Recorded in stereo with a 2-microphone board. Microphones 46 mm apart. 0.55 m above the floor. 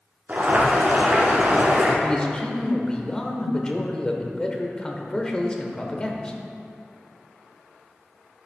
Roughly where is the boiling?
Right.